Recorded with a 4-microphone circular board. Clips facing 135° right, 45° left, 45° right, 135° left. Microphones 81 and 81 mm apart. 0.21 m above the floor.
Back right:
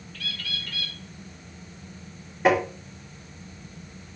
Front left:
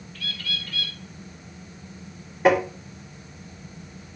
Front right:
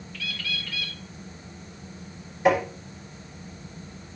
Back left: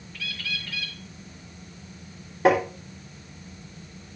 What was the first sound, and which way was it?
A bird, 160° right.